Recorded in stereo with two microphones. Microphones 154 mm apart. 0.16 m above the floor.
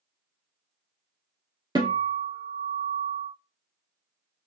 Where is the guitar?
30° right (ahead or behind), 1.6 m.